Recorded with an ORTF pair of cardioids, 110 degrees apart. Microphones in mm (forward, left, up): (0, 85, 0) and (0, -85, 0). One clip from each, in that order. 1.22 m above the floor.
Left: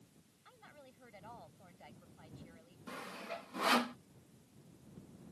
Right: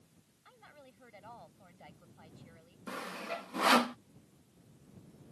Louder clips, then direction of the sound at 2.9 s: Right 5 dB; 25° right.